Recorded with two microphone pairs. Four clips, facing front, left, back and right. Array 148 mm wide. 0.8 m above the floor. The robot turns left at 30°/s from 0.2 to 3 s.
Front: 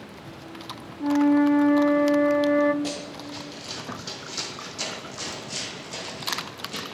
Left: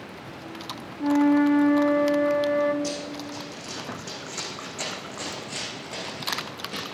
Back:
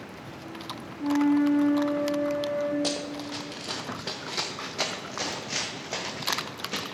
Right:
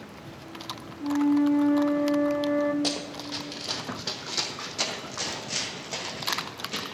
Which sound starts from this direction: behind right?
Running footsteps, at 2.8 s.